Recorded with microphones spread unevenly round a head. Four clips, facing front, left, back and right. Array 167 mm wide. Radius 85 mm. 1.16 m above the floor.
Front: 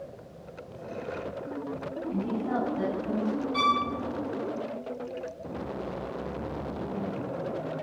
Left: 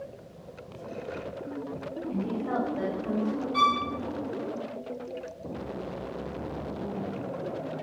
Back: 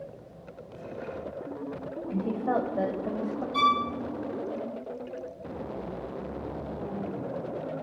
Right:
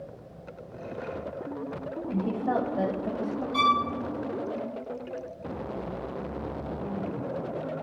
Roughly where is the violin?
Behind right.